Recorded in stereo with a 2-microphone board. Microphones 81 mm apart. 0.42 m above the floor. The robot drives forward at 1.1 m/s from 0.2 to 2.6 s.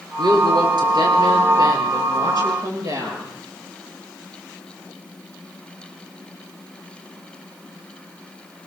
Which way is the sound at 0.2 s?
65° right (ahead or behind).